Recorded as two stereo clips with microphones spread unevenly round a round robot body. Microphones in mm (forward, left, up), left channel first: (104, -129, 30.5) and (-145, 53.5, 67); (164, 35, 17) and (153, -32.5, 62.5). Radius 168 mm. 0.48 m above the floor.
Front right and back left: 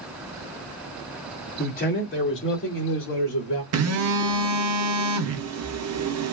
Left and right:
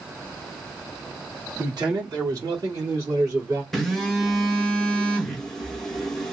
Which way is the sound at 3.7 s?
125° left.